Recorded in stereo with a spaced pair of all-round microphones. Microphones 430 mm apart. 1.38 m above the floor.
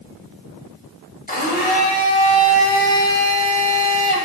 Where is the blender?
20° left (ahead or behind), 4.5 m.